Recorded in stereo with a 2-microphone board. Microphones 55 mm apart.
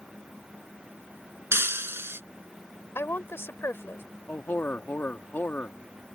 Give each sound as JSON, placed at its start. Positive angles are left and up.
{"t": 1.5, "sound": "breaking glass", "side_deg": -50}
{"t": 3.0, "sound": "a woman speaking", "side_deg": 50}
{"t": 4.3, "sound": "a man speaking", "side_deg": 40}